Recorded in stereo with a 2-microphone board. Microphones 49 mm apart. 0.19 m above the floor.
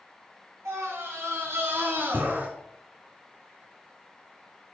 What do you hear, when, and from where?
0.7 s a scream: 65° right (ahead or behind), 3.5 m; by 2.5 s 35° right (ahead or behind), 2 m